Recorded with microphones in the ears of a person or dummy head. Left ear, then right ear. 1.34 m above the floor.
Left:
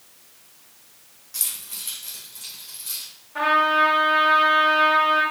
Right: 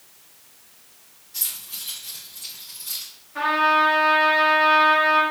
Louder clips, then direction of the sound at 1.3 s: Even; 30° left (ahead or behind).